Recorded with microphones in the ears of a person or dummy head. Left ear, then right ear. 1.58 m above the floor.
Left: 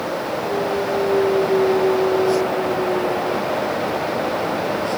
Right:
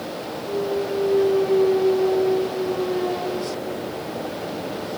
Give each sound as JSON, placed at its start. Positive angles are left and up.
{"t": 0.5, "sound": "a clunk", "side_deg": -40}